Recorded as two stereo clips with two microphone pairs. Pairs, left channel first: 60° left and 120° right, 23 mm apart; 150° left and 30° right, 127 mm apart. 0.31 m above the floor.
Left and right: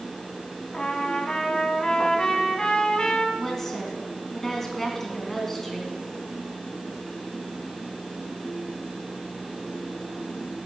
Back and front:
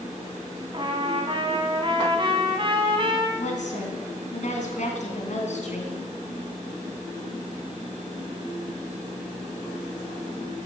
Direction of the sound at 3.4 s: 135° left.